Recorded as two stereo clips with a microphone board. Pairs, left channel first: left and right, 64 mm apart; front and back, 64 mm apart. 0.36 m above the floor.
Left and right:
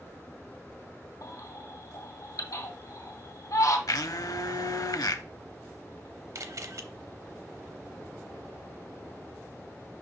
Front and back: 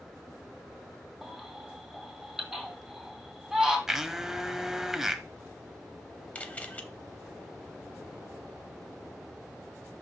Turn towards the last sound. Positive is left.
turn(degrees=-65)